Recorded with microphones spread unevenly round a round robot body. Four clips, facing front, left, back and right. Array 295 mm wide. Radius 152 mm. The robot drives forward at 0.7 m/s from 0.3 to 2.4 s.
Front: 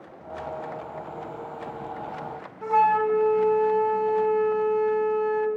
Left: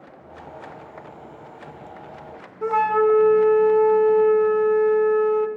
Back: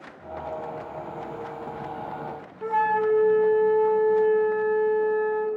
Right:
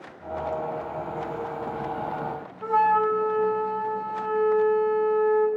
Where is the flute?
100° left, 0.7 m.